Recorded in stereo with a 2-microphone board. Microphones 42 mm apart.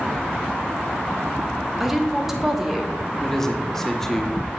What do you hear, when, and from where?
1.8 s a woman speaking: 10° right (ahead or behind), 0.8 m
3.2 s a man speaking: 5° left (ahead or behind), 0.6 m